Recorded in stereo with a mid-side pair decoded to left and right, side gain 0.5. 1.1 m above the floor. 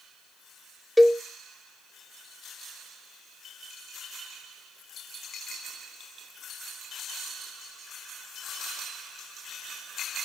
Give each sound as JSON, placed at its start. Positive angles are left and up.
{"t": 1.0, "sound": "a cowbell", "azimuth_deg": 0, "distance_m": 0.6}